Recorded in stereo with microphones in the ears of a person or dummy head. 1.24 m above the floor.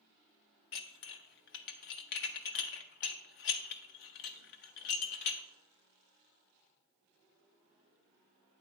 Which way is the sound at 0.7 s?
50° left (ahead or behind).